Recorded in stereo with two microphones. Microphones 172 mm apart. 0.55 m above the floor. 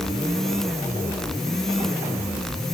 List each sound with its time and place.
Only background noise.